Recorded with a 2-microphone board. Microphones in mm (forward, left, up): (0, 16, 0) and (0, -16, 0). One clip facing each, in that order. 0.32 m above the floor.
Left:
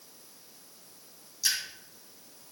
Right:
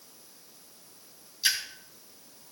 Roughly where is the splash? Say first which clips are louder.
Right 3 dB; right.